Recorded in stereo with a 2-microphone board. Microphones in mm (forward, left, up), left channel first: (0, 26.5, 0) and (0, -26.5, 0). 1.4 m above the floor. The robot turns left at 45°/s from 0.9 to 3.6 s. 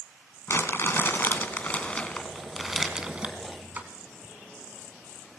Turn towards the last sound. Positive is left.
turn(degrees=-45)